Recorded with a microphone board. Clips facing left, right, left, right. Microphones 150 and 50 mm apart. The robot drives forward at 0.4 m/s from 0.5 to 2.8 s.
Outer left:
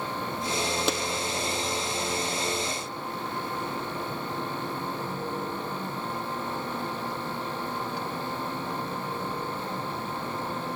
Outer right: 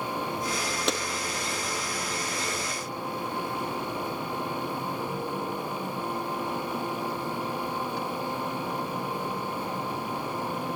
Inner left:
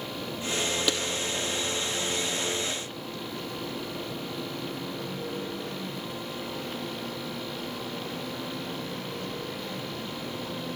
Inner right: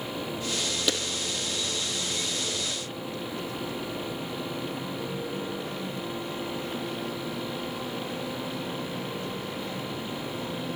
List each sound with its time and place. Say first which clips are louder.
0.9 s a clap: outer right 2 dB, inner right 2 dB; centre (ahead or behind), 3 m